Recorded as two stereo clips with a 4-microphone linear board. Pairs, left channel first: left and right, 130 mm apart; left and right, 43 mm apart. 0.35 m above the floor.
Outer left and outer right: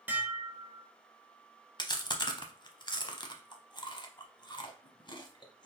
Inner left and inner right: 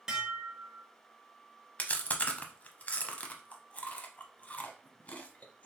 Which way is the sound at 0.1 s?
10° right (ahead or behind).